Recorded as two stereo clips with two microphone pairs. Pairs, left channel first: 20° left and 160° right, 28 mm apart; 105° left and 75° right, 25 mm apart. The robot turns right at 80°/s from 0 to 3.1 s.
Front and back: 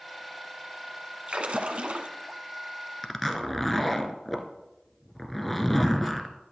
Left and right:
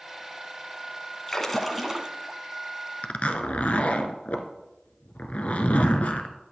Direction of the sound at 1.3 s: 170° left.